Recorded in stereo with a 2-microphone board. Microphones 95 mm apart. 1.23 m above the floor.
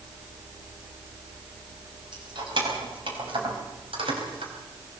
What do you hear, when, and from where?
2.1 s keys jangling: 55° right (ahead or behind), 5 m; by 4.5 s 70° right (ahead or behind), 4.5 m